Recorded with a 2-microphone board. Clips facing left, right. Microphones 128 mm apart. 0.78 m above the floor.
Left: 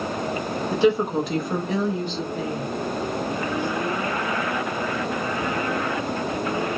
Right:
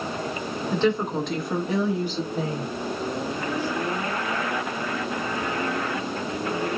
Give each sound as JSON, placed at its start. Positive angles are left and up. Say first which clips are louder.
{"t": 0.7, "sound": "a woman speaking", "louder": "left 4 dB", "side_deg": 10, "distance_m": 1.2}